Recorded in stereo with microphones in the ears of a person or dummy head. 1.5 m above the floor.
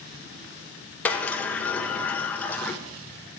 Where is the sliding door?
10° left (ahead or behind), 0.6 m.